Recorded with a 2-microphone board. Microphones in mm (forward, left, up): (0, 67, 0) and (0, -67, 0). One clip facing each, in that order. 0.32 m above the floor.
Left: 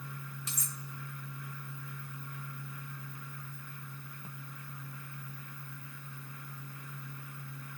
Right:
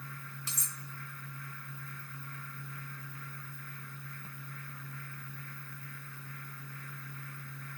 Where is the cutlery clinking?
30° right (ahead or behind), 0.8 m.